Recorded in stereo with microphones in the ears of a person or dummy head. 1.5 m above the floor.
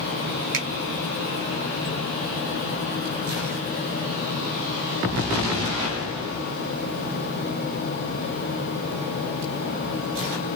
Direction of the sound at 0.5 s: 70° right (ahead or behind).